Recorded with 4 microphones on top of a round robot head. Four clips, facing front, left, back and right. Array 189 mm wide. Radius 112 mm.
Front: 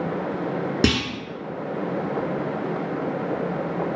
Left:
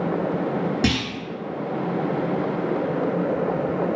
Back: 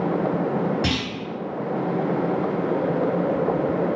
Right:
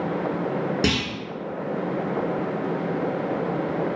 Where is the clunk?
5° right, 1.1 m.